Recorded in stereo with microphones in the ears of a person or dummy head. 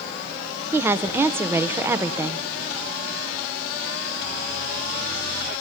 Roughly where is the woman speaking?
Centre.